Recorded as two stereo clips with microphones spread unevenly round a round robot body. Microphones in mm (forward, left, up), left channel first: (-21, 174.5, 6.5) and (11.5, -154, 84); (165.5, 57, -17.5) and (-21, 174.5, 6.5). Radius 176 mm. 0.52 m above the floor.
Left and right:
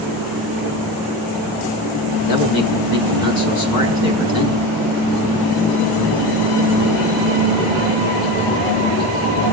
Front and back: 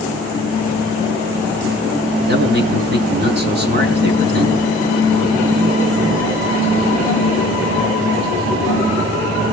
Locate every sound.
2.3 s a man speaking: 105° left, 6 m